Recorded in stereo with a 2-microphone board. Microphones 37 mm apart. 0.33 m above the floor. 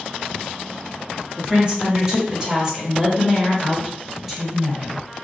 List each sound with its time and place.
1.4 s a woman speaking: 20° right (ahead or behind), 1.6 m; by 5.0 s 5° right (ahead or behind), 1.5 m